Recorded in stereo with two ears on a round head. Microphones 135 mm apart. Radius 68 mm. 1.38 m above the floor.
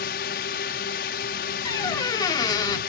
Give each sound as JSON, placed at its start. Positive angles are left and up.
{"t": 0.0, "sound": "a drone", "side_deg": 70}
{"t": 1.6, "sound": "a squeak", "side_deg": 25}